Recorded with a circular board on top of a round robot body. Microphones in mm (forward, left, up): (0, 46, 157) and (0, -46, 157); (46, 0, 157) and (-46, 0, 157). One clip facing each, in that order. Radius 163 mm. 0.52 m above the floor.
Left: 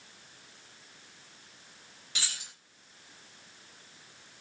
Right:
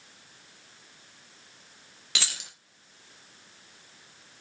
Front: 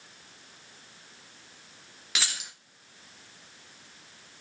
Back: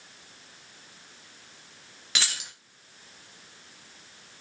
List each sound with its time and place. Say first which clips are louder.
2.1 s keys jangling: right 4 dB, back 1 dB; 90° right, 0.6 m